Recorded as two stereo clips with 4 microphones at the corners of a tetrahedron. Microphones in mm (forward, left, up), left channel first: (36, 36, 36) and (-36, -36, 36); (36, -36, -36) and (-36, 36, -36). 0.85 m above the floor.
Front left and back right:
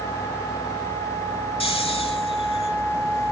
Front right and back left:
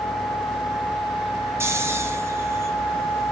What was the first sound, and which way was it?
Snoring, 70° left.